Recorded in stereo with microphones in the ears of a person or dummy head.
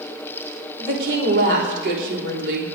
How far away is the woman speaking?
About 3.5 m.